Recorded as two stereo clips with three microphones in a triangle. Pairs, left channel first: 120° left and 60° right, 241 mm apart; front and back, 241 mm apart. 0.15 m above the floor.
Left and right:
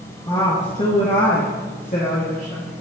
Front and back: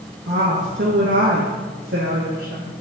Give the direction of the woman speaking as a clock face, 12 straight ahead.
6 o'clock.